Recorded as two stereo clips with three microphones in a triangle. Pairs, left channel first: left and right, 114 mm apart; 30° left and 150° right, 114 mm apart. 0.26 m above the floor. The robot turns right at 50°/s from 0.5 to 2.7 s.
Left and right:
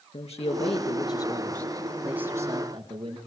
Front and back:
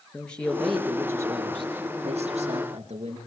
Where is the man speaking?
110° left, 4.5 m; by 3.2 s 140° right, 4.5 m.